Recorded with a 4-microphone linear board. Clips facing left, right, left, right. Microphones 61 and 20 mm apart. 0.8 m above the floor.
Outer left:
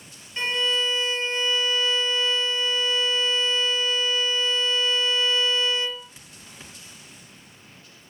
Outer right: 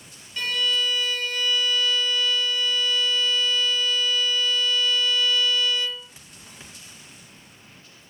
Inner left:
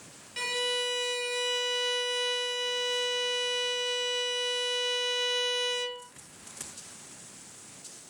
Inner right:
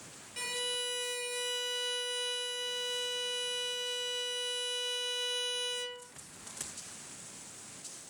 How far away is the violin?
About 0.6 m.